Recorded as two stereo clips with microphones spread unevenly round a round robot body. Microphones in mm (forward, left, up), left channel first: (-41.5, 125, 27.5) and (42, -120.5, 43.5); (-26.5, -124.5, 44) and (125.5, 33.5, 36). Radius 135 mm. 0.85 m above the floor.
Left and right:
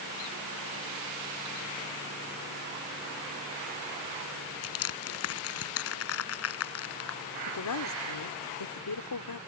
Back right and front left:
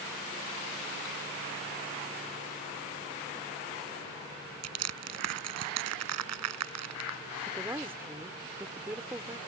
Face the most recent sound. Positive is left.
turn(degrees=130)